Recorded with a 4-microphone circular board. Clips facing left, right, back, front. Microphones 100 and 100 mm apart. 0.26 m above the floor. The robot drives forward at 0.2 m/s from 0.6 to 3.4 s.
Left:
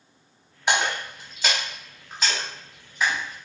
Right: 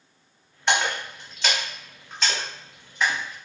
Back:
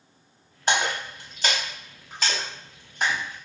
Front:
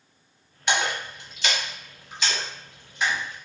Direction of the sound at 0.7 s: 165° left.